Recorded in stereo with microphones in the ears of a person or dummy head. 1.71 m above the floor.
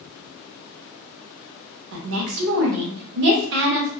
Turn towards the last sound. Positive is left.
turn(degrees=-60)  # may be behind; listen again after turning